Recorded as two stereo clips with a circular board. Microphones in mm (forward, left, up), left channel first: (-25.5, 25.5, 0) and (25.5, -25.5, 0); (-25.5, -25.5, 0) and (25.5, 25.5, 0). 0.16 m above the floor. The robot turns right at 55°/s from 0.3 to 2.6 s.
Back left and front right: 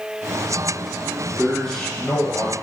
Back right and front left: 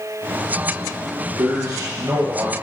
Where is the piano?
No piano in this recording.